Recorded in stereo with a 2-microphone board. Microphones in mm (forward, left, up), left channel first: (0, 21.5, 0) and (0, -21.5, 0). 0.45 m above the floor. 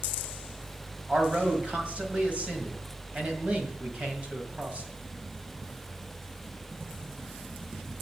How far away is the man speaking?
About 2 m.